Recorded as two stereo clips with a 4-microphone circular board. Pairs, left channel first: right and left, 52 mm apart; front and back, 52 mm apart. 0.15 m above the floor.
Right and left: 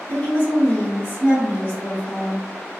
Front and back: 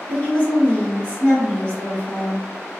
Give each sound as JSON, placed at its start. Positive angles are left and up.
{"t": 0.1, "sound": "a woman speaking", "azimuth_deg": -60, "distance_m": 1.5}